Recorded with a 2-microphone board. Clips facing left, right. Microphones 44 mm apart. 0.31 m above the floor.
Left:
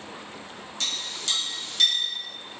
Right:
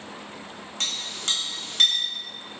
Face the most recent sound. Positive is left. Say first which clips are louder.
# right 1 dB
turn(degrees=-40)  # may be behind; listen again after turning